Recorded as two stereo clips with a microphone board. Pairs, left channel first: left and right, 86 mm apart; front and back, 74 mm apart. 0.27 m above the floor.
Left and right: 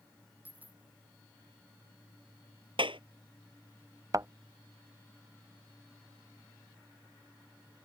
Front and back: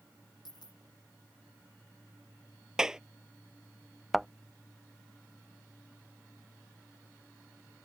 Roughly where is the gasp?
I don't hear a gasp.